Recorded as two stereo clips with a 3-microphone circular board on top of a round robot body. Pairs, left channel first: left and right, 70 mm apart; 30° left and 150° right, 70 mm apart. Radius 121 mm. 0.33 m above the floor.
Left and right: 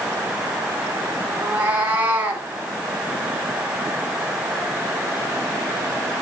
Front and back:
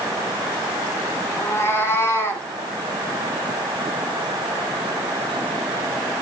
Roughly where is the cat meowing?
Ahead right.